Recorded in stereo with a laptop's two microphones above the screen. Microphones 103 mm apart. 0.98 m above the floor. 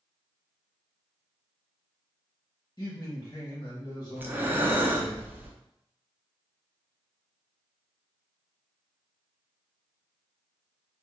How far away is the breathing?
About 0.5 m.